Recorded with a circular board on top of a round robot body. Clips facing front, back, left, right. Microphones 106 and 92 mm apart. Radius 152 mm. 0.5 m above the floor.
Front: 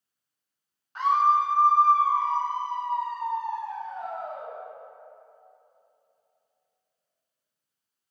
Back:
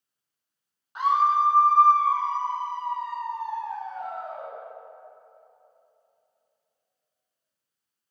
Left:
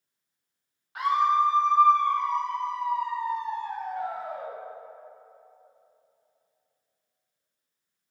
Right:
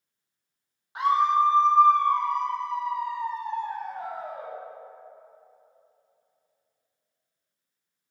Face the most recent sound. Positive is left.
turn(degrees=-60)